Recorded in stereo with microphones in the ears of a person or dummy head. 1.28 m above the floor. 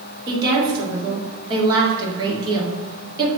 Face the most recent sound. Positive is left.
turn(degrees=-25)  # may be behind; listen again after turning